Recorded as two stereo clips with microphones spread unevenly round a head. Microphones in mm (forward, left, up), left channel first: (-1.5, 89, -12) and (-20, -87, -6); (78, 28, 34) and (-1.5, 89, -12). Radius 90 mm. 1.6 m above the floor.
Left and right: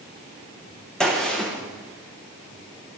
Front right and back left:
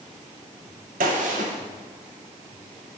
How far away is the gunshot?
About 0.9 m.